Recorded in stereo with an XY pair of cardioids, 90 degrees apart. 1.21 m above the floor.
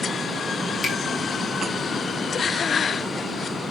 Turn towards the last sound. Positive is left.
turn(degrees=45)